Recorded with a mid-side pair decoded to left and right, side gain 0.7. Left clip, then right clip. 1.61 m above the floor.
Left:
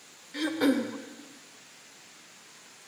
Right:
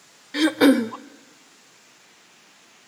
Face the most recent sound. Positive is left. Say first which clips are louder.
# right 10 dB
turn(degrees=-45)